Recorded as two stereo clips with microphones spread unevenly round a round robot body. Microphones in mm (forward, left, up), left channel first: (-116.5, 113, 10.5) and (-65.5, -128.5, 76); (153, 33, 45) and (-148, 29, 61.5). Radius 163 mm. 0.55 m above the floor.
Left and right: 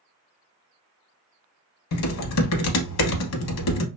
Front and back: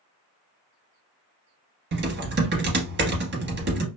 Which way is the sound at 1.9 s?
130° left.